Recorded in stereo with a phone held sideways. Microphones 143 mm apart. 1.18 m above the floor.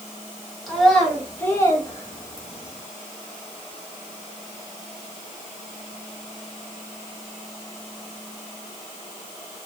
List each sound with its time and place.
0.7 s a child speaking: centre (ahead or behind), 1.7 m; by 2.8 s 55° left (ahead or behind), 1.2 m